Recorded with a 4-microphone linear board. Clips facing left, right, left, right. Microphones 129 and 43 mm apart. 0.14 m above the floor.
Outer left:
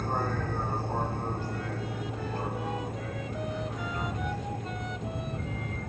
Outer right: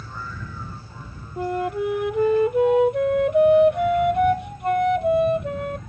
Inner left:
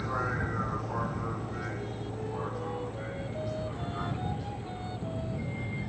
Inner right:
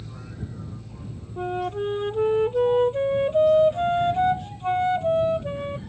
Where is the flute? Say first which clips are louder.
Outer right 11 dB, inner right 10 dB; 70° right (ahead or behind).